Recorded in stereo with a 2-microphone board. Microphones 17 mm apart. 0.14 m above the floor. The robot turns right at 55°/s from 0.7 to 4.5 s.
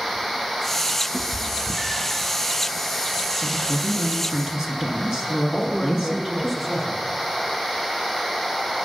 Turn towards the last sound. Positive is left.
turn(degrees=-10)  # may be behind; listen again after turning